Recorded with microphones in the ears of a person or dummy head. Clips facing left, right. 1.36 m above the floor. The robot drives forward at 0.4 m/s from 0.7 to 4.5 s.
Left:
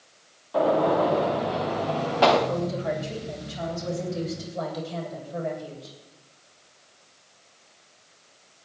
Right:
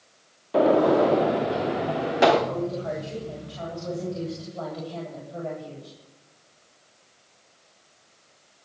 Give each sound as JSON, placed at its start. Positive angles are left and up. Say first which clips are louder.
{"t": 0.5, "sound": "a gunshot", "louder": "right 3 dB", "side_deg": -30, "distance_m": 1.1}
{"t": 2.5, "sound": "a woman speaking", "louder": "left 1 dB", "side_deg": 20, "distance_m": 7.5}